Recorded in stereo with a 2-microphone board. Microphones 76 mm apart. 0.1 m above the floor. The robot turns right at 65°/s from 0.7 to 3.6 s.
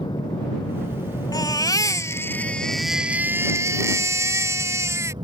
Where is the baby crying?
85° left; by 5.1 s 130° right.